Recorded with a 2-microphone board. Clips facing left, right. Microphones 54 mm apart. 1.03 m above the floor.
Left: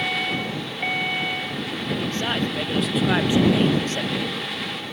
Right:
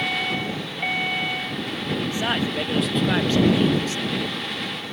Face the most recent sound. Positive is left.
turn(degrees=60)  # may be behind; listen again after turning